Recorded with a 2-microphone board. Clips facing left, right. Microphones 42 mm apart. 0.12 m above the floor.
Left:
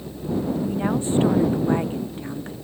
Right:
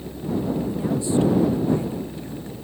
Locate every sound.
0.6 s a woman speaking: 45° left (ahead or behind); by 2.5 s 40° left (ahead or behind)